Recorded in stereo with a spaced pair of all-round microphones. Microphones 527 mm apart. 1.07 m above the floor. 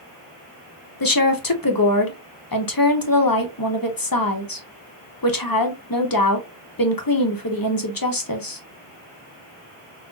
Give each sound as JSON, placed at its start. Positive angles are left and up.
{"t": 1.0, "sound": "a woman speaking", "side_deg": 40, "distance_m": 0.9}